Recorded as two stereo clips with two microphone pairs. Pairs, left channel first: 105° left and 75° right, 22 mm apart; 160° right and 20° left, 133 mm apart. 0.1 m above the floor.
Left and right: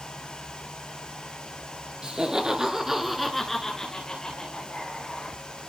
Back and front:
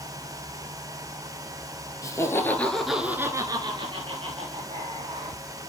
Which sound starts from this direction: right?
Laughter, at 2.0 s.